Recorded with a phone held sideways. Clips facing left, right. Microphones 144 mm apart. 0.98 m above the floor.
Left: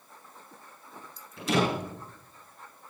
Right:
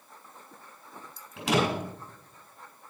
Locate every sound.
1.4 s a door slam: 80° right, 5 m